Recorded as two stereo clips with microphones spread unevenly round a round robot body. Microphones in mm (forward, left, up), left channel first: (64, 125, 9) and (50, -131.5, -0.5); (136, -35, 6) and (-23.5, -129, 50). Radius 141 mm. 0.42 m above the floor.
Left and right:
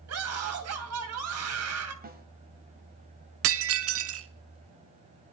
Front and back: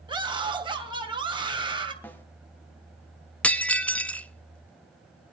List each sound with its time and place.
0.1 s a scream: 80° right, 3 m
2.0 s a snare drum: 40° right, 2 m
3.4 s breaking glass: 55° right, 0.8 m